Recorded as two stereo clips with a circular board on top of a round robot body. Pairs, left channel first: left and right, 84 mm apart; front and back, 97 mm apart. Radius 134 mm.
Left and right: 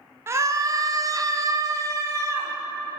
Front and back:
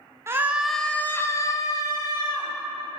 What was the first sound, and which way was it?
A scream, 130° right.